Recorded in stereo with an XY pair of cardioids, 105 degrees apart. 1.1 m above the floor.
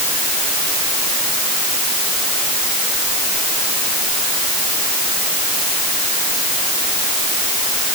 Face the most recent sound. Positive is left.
No sound to turn to.